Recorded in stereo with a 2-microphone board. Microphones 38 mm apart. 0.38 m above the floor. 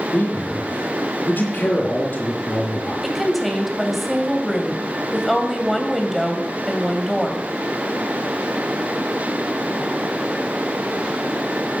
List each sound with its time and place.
0.1 s a man speaking: 65° left (ahead or behind), 4.5 m
3.0 s a woman speaking: centre (ahead or behind), 2.5 m